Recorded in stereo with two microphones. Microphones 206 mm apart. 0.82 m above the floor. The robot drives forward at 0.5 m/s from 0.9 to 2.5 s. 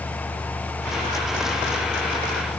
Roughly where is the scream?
No scream in this recording.